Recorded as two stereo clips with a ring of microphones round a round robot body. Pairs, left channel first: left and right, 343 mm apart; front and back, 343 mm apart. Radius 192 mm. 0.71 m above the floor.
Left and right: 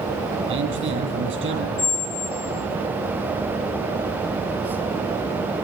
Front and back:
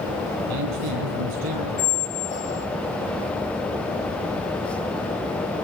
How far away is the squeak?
About 1.2 m.